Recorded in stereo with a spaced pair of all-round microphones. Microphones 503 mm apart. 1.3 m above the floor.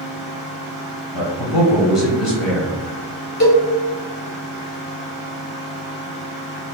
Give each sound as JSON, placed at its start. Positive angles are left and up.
{"t": 0.0, "sound": "a fan", "side_deg": 45, "distance_m": 1.7}
{"t": 1.1, "sound": "a man speaking", "side_deg": 60, "distance_m": 0.9}
{"t": 3.4, "sound": "a cowbell", "side_deg": 60, "distance_m": 1.2}